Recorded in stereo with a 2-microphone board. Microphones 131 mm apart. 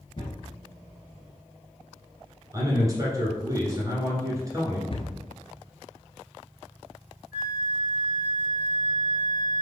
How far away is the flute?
About 0.7 m.